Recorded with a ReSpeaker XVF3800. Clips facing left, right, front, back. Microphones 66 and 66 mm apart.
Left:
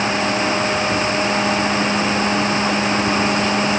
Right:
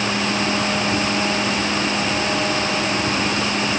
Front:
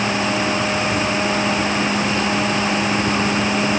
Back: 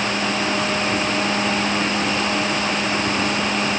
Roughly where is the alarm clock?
I don't hear an alarm clock.